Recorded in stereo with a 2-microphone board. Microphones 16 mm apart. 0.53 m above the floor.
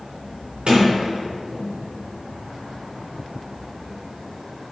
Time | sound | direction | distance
0.7 | a sliding door | 80° right | 3 m